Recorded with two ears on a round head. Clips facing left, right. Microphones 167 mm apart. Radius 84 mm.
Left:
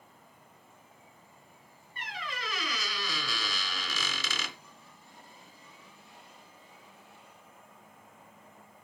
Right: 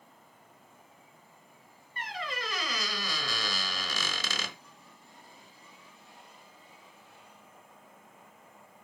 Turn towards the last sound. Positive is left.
turn(degrees=-45)  # may be behind; listen again after turning